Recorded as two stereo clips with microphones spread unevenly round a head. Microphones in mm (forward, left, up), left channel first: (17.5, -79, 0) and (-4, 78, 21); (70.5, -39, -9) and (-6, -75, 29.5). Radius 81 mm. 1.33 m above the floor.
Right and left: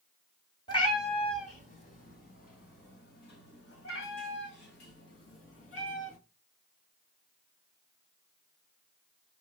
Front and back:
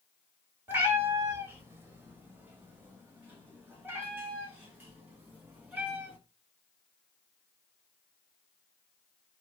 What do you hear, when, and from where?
0.7 s a cat meowing: 145° right, 1.4 m; by 6.2 s 95° right, 3.5 m